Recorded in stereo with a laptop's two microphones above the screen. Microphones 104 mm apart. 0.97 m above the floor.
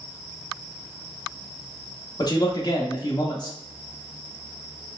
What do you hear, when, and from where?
2.2 s a man speaking: 40° left (ahead or behind), 0.7 m